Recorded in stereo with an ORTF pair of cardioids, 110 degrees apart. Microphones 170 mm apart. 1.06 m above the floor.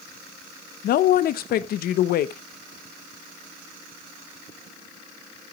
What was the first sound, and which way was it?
A man speaking, 60° left.